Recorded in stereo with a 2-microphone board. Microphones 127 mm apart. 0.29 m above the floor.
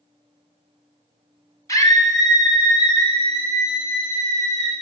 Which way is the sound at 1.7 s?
25° left (ahead or behind).